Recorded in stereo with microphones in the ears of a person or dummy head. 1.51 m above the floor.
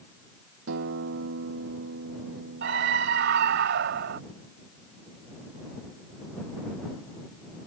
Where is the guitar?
65° right (ahead or behind).